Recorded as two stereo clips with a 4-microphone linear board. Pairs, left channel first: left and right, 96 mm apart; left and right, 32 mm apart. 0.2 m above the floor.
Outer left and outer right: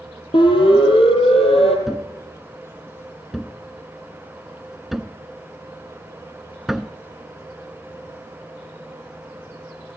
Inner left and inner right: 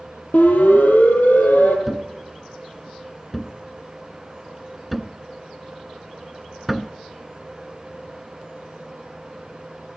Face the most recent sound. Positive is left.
turn(degrees=0)  # may be behind; listen again after turning